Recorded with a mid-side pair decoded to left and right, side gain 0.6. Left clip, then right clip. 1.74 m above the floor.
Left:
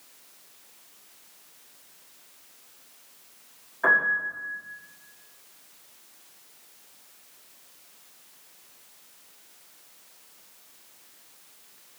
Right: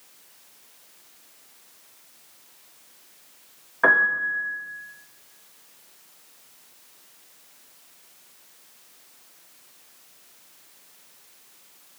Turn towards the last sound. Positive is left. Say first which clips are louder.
# right 3 dB
turn(degrees=-55)